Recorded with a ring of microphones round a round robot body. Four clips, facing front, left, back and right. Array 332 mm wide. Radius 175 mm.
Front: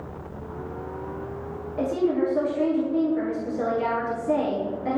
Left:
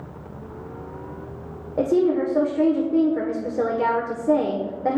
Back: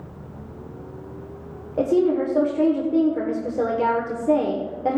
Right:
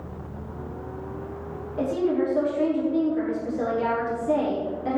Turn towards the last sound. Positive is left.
turn(degrees=135)